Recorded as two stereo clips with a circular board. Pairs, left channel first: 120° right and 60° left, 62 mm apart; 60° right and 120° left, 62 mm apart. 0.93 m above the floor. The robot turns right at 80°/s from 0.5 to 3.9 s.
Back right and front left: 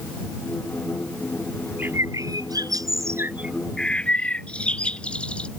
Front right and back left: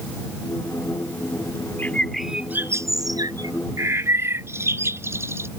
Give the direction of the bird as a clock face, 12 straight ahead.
12 o'clock.